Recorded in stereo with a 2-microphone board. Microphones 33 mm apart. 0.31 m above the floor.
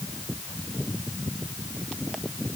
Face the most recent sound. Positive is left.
No sound to turn to.